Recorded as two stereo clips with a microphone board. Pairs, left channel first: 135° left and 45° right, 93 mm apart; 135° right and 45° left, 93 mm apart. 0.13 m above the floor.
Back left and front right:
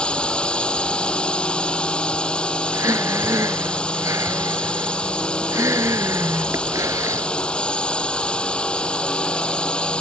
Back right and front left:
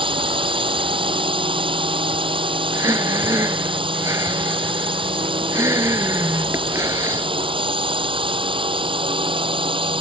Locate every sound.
0.0 s a drone: 55° left
2.7 s breathing: straight ahead